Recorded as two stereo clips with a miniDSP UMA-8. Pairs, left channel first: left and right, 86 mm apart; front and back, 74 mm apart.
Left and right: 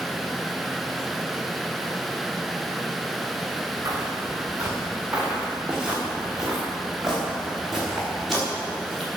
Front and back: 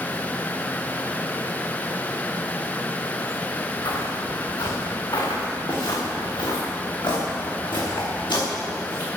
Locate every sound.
3.9 s footsteps: 25° right, 4.5 m; by 9.1 s 5° left, 9 m